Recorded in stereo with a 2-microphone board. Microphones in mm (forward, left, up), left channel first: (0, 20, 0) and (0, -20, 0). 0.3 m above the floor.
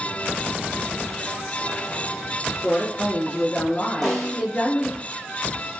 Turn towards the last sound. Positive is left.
turn(degrees=5)  # may be behind; listen again after turning